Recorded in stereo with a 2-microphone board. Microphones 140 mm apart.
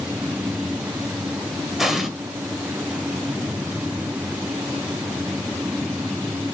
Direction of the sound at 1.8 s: Centre (ahead or behind).